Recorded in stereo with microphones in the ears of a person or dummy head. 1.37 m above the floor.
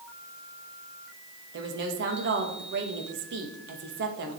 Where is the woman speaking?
55° right (ahead or behind), 2 m.